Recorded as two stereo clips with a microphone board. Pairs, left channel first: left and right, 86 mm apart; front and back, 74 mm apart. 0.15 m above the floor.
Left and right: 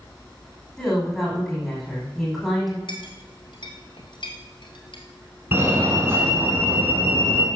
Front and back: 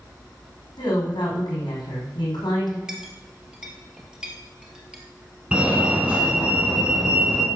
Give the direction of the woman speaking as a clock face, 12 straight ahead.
12 o'clock.